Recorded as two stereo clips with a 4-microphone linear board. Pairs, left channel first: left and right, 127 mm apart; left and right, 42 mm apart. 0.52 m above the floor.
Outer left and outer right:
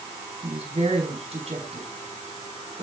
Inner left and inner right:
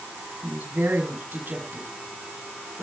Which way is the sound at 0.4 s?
50° right (ahead or behind).